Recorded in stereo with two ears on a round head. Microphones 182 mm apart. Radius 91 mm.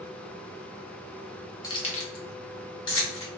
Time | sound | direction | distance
1.6 | keys jangling | 20° left (ahead or behind) | 0.7 m